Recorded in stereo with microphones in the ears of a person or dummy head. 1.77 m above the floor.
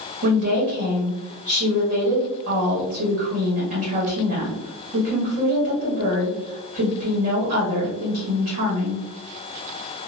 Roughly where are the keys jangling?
No keys jangling in this recording.